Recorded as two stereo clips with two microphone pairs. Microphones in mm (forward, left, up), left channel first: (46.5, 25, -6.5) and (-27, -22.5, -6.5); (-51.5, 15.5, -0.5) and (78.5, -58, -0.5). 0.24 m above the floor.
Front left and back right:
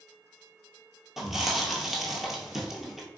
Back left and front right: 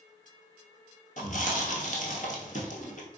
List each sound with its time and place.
1.2 s chewing: 125° left, 0.8 m